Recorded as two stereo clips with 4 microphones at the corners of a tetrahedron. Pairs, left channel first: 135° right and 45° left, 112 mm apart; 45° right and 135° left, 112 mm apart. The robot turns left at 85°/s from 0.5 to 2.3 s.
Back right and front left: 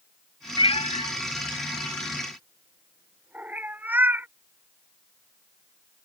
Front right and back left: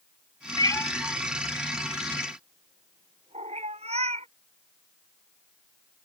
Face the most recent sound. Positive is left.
turn(degrees=120)